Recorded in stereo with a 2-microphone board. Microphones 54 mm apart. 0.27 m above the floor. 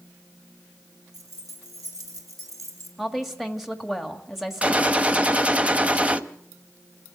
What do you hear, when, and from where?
1.1 s keys jangling: 85° right, 4.5 m; by 2.9 s 75° right (ahead or behind), 4.5 m
3.0 s a woman speaking: 5° right (ahead or behind), 1.6 m
4.6 s a gunshot: 25° right (ahead or behind), 0.9 m